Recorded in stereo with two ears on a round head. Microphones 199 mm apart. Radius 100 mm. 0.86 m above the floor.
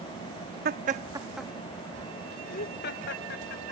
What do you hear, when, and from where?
0.7 s laughter: 45° right (ahead or behind); by 3.7 s 55° left (ahead or behind)